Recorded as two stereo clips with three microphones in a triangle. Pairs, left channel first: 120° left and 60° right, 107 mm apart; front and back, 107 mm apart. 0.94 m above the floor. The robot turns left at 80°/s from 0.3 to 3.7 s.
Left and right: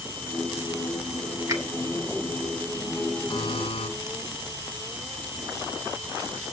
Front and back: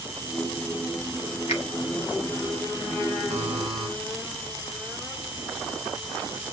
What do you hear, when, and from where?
1.5 s a finger snap: straight ahead, 2.5 m; by 1.6 s 10° right, 2.5 m
3.3 s a buzzer: 175° left, 3.5 m; by 3.9 s 140° left, 3.5 m